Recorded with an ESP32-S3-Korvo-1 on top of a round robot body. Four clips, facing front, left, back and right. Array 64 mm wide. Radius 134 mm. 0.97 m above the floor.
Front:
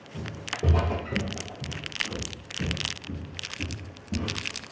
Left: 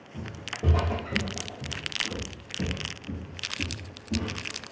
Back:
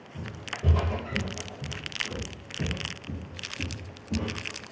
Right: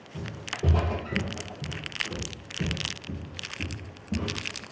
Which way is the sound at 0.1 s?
10° left.